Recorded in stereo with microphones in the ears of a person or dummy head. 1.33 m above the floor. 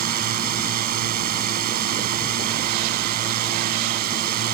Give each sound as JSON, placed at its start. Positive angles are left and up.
{"t": 0.0, "sound": "a drone", "side_deg": -50}